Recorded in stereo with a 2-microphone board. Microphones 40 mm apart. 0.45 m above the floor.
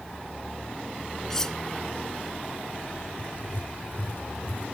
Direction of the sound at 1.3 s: 10° left (ahead or behind).